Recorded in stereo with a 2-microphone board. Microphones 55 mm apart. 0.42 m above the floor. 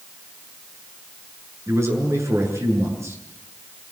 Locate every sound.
1.7 s a man speaking: 60° right (ahead or behind), 7.5 m